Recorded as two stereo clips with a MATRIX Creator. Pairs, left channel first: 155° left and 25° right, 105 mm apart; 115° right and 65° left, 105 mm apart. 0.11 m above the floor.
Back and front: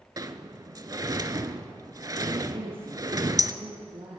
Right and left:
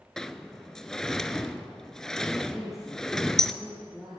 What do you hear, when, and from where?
0.2 s a sliding door: 35° right, 0.6 m
2.5 s a woman speaking: 25° right, 3.5 m